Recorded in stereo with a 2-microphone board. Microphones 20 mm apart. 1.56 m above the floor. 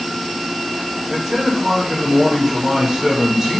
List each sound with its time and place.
1.1 s a man speaking: 30° right (ahead or behind), 0.7 m